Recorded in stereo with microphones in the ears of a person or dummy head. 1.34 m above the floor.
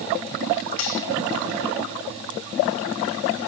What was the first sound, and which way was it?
Cutlery clinking, 75° left (ahead or behind).